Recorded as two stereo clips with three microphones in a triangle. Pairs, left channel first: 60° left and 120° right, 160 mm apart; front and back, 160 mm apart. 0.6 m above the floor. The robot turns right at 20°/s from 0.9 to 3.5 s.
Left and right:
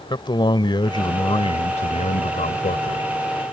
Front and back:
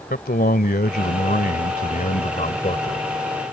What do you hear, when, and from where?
0.1 s a man speaking: straight ahead; by 3.0 s 40° left